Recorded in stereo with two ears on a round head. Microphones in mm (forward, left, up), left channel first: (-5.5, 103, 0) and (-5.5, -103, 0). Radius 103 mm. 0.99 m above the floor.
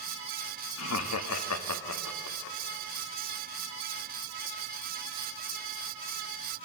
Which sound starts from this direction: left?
Laughter, at 0.8 s.